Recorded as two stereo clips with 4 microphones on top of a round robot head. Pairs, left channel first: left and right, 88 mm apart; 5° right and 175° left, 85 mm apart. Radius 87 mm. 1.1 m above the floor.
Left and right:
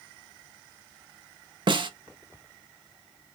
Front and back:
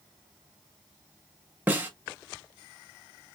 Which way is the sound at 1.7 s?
115° right.